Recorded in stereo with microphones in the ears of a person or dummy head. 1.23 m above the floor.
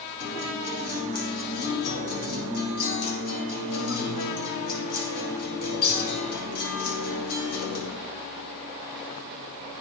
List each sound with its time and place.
0.2 s a guitar: 60° left (ahead or behind), 8 m